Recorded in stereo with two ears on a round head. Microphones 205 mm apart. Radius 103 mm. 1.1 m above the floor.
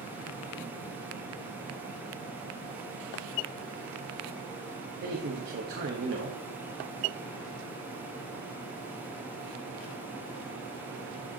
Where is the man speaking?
50° right (ahead or behind), 1.2 m.